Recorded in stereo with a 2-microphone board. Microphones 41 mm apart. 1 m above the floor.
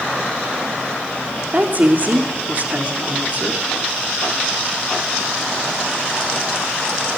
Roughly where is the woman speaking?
Right.